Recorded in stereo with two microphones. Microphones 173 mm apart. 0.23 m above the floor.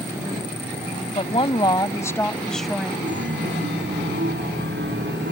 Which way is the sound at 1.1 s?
35° left (ahead or behind).